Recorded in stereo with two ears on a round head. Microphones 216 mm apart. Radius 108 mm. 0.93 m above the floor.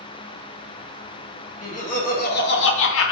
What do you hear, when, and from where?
1.6 s laughter: 30° left (ahead or behind), 1.1 m; by 3.1 s 60° left (ahead or behind), 0.5 m